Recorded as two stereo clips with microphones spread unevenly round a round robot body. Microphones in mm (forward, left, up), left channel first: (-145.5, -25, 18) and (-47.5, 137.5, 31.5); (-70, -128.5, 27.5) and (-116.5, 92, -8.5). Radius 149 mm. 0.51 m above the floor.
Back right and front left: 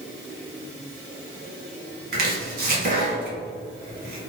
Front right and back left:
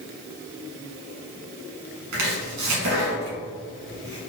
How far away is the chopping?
About 1.3 m.